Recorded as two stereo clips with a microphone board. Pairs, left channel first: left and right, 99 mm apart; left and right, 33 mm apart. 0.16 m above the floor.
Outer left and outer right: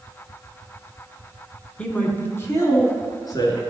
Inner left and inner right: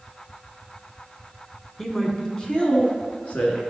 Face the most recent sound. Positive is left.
turn(degrees=45)  # may be behind; listen again after turning